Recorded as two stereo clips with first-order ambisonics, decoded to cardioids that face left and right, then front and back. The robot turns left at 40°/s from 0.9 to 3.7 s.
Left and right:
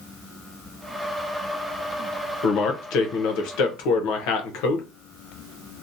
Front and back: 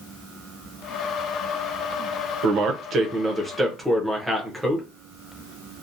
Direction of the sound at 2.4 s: 140° left.